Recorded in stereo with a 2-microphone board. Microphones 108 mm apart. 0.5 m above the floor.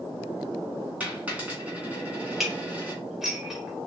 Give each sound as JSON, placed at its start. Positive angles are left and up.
{"t": 1.0, "sound": "a dropped coin", "side_deg": -15, "distance_m": 1.7}
{"t": 2.4, "sound": "dishes clattering", "side_deg": -5, "distance_m": 1.4}